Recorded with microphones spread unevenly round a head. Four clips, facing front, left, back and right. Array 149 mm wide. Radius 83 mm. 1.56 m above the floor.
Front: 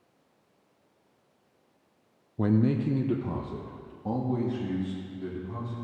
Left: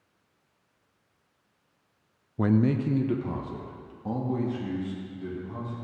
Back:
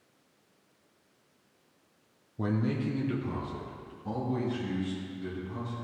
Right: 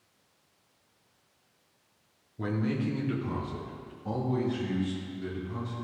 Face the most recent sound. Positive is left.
turn(degrees=25)